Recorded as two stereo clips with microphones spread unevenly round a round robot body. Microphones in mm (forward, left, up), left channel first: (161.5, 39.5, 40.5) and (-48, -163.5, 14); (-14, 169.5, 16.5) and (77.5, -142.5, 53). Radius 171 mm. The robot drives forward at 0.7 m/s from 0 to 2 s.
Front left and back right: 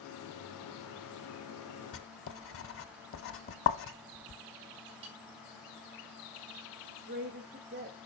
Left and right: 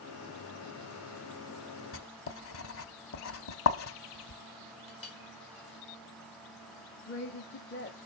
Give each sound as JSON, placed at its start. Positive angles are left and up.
{"t": 1.9, "sound": "writing", "azimuth_deg": 55, "distance_m": 0.7}
{"t": 4.9, "sound": "a clink", "azimuth_deg": 165, "distance_m": 1.8}
{"t": 7.1, "sound": "a woman speaking", "azimuth_deg": 160, "distance_m": 1.2}